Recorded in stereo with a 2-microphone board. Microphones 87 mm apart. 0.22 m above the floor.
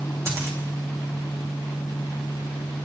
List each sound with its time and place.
0.3 s a dropped coin: 35° right (ahead or behind), 4 m